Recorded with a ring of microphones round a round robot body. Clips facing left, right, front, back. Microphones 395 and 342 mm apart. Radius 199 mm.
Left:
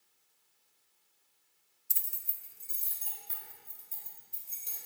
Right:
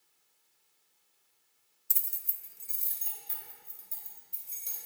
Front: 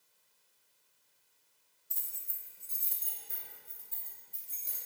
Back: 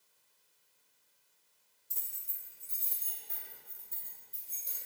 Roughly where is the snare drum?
I don't hear a snare drum.